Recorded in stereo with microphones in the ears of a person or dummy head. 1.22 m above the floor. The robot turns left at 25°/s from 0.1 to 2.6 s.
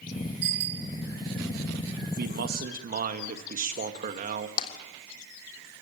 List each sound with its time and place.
0.4 s a bicycle bell: 60° right (ahead or behind), 3.5 m; by 0.9 s 70° right (ahead or behind), 3.5 m
2.2 s a man speaking: 60° right (ahead or behind), 2 m; by 4.5 s 50° right (ahead or behind), 2 m
4.6 s tapping: 35° left (ahead or behind), 3 m